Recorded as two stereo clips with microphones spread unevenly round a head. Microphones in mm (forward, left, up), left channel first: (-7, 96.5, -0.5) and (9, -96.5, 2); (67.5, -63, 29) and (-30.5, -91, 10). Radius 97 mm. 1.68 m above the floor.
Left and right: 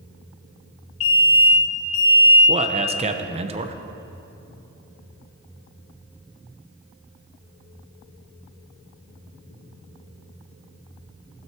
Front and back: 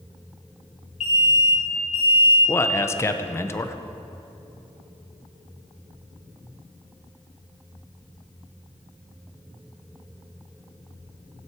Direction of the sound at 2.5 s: 35° right.